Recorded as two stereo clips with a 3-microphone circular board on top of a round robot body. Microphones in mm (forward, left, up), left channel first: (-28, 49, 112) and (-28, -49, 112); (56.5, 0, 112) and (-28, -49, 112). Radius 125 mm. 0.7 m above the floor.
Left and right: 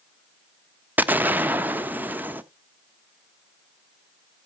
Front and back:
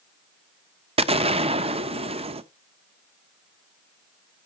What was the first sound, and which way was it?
An explosion, 160° right.